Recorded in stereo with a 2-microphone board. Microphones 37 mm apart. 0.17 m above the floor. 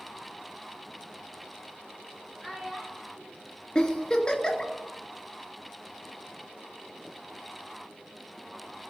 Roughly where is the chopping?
No chopping in this recording.